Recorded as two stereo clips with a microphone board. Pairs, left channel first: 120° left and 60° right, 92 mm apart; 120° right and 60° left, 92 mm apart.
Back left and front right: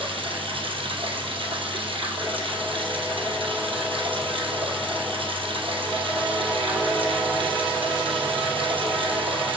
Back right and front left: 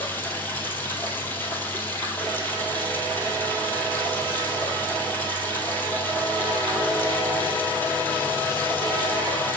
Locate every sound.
0.0 s running water: 55° right, 1.7 m